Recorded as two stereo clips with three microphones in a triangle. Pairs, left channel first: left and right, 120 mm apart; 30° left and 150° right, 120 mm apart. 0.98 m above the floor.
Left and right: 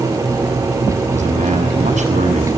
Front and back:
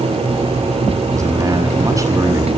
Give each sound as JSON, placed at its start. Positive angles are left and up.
{"t": 1.1, "sound": "a man speaking", "azimuth_deg": -90, "distance_m": 6.5}